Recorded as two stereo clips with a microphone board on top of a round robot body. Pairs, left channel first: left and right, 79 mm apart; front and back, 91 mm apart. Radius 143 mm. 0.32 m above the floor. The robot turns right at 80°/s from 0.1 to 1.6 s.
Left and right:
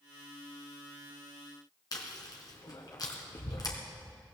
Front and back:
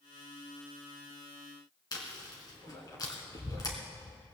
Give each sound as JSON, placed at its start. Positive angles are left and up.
{"t": 1.9, "sound": "chewing", "azimuth_deg": 50, "distance_m": 2.5}